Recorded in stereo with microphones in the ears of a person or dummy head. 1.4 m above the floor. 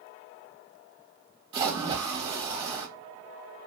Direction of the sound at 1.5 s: 30° right (ahead or behind).